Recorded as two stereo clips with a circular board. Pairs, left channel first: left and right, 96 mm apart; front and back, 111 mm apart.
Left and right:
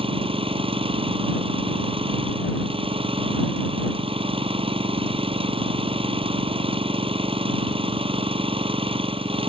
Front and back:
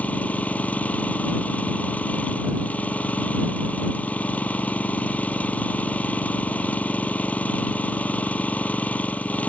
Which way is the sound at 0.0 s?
75° right.